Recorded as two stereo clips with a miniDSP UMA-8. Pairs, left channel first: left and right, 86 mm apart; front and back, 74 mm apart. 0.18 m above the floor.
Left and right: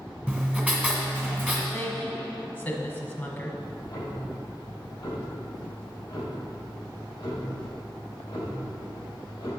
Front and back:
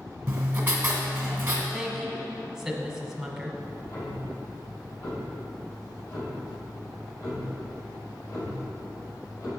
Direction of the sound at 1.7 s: 100° left.